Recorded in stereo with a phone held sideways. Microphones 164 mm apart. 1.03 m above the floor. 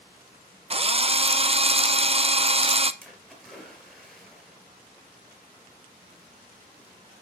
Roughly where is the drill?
Right.